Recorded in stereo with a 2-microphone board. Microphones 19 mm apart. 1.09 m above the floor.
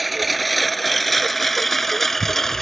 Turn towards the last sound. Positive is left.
turn(degrees=20)  # may be behind; listen again after turning